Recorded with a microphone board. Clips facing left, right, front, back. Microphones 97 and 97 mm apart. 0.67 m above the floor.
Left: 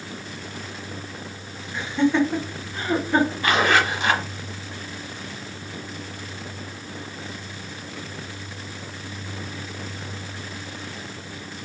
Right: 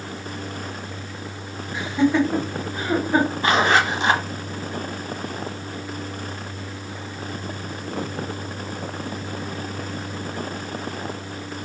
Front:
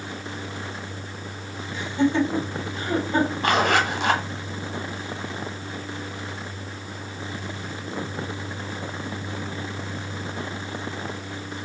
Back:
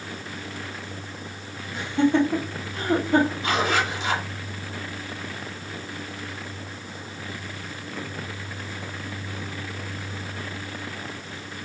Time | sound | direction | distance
1.7 | laughter | 170° right | 1.5 m
3.4 | a zipper | 25° right | 0.8 m